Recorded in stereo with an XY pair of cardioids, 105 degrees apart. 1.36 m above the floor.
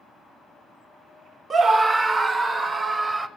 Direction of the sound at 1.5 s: 40° right.